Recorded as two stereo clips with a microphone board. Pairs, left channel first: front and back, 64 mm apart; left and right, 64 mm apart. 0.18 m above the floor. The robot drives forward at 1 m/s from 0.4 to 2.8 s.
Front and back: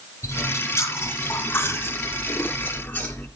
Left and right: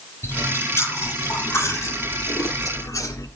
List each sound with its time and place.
0.2 s chewing: 40° left, 5.5 m; by 3.3 s 65° left, 4 m